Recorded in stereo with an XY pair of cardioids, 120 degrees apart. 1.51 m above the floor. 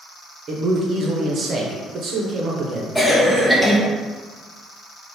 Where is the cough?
10° left, 0.7 m.